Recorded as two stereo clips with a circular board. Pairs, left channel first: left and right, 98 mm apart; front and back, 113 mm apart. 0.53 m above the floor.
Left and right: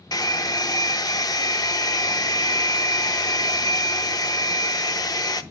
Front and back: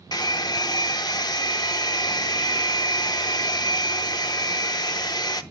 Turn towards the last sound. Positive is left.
turn(degrees=45)